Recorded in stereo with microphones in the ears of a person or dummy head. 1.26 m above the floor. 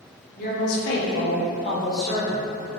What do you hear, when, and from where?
0.4 s a woman speaking: 55° left (ahead or behind), 0.9 m; by 2.5 s centre (ahead or behind), 0.9 m